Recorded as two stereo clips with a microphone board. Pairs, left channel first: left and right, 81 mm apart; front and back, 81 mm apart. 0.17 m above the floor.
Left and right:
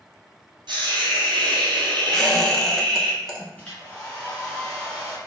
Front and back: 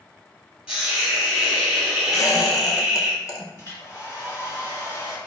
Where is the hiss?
100° right, 1.1 m.